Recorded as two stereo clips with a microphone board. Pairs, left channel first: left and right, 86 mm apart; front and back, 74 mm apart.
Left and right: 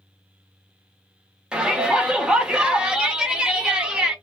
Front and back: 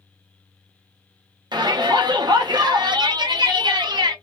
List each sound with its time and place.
1.5 s a shout: 170° right, 0.9 m